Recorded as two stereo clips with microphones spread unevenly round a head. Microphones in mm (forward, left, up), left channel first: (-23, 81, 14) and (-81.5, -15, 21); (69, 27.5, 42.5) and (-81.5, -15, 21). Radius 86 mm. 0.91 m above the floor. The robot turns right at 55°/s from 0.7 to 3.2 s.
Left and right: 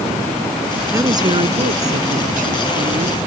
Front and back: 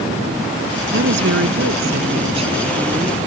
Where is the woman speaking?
175° left; by 3.2 s 65° right.